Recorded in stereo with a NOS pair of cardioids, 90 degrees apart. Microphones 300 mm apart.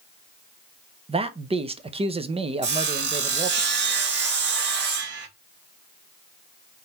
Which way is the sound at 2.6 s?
35° right.